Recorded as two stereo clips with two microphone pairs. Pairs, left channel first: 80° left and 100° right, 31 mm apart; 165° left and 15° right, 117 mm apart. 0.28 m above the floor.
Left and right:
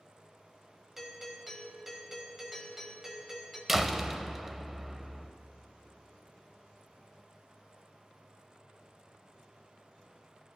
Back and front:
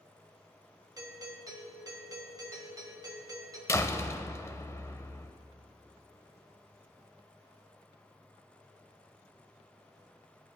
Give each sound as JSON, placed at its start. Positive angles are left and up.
{"t": 1.0, "sound": "a doorbell", "azimuth_deg": -25, "distance_m": 1.8}
{"t": 3.7, "sound": "a door slam", "azimuth_deg": -170, "distance_m": 0.6}